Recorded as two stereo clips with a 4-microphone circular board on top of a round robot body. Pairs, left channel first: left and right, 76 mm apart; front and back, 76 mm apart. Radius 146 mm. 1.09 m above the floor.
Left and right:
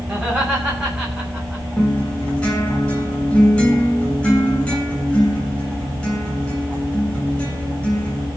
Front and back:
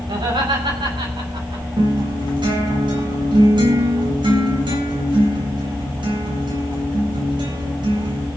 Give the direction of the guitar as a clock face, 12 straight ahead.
6 o'clock.